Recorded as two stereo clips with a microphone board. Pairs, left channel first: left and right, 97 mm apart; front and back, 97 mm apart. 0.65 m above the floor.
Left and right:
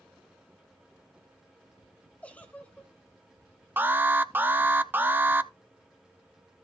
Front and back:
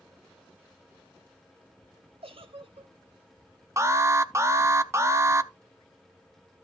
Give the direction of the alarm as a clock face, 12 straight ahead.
5 o'clock.